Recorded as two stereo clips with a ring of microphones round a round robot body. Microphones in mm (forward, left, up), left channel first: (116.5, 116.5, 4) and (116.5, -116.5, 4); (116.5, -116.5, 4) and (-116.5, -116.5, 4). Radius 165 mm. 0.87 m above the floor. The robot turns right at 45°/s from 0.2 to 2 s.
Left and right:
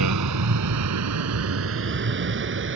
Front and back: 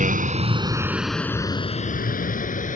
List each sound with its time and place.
0.0 s a vehicle: 125° right; by 2.8 s 55° right